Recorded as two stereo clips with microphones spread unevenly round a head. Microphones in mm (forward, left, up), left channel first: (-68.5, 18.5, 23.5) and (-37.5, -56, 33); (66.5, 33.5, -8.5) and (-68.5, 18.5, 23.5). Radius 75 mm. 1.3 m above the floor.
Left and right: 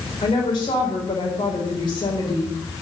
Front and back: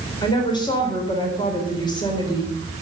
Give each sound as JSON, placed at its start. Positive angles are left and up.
{"t": 0.2, "sound": "a woman speaking", "azimuth_deg": 65, "distance_m": 4.0}